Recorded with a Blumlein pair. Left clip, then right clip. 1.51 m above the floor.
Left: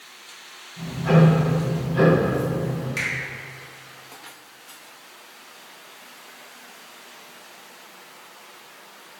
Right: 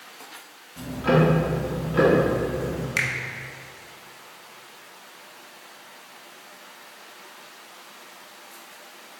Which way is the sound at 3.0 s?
25° right.